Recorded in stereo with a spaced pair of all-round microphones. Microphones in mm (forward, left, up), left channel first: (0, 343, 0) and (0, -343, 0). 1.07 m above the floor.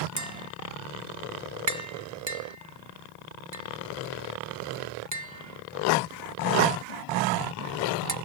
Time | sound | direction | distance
0.2 | tapping | 25° right (ahead or behind) | 1.4 m